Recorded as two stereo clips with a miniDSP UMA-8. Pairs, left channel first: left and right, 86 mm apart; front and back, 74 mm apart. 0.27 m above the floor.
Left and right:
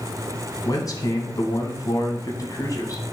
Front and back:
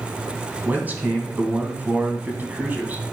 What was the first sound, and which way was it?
A man speaking, 120° left.